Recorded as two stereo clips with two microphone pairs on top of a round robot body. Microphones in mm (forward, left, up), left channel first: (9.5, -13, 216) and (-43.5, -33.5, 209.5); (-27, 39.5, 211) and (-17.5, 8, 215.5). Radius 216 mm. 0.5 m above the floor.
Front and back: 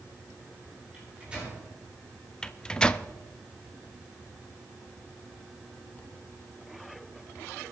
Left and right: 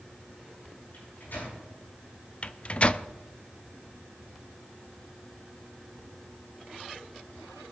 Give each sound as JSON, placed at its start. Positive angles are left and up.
{"t": 0.9, "sound": "a microwave", "azimuth_deg": 130, "distance_m": 9.0}
{"t": 2.4, "sound": "a microwave", "azimuth_deg": 100, "distance_m": 0.8}